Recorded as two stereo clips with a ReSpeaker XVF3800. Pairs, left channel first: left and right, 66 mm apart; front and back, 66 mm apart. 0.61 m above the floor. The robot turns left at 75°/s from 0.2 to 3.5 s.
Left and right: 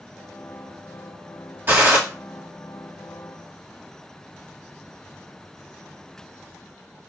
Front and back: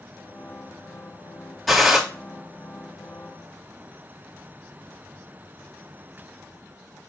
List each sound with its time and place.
1.7 s a gunshot: 90° right, 1.2 m; by 2.0 s 110° right, 1.2 m